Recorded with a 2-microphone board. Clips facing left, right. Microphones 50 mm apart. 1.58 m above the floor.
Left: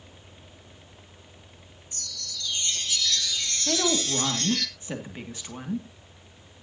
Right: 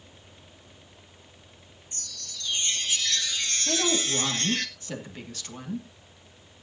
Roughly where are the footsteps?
I don't hear footsteps.